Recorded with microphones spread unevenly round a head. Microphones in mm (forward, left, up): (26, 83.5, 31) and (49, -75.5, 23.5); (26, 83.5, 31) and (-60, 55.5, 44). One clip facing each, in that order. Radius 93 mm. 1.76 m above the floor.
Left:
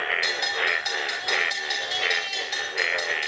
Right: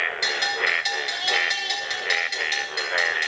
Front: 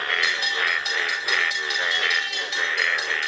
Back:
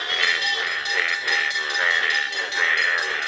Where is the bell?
110° right, 8 m.